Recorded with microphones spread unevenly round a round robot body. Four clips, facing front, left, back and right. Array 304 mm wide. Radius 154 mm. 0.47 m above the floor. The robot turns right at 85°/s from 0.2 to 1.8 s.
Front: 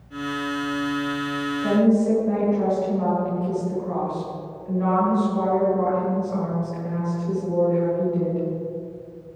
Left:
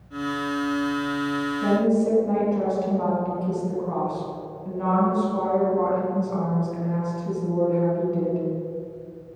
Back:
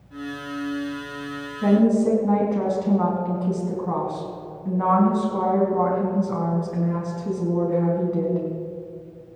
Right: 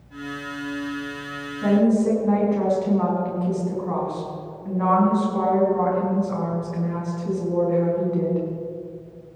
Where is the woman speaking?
175° left, 5 m; by 8.4 s 170° right, 5 m.